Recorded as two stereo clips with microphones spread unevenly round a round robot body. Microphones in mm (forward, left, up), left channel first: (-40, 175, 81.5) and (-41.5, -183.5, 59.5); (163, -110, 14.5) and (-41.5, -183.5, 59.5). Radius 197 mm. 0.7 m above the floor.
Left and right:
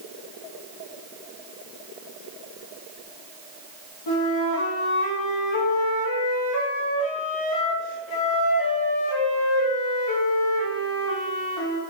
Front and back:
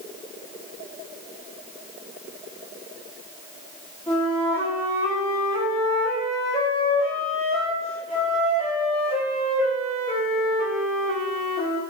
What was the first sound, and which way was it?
A flute, 100° left.